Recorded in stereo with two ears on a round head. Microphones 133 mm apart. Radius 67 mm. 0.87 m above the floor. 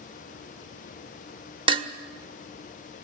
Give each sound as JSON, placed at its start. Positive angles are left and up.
{"t": 1.7, "sound": "dishes clattering", "side_deg": -35, "distance_m": 1.2}